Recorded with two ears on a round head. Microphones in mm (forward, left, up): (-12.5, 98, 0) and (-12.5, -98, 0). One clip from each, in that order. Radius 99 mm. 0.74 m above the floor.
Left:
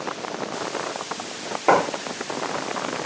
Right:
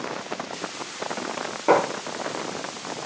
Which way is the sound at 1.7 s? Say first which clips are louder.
Left 1 dB; 15° left (ahead or behind).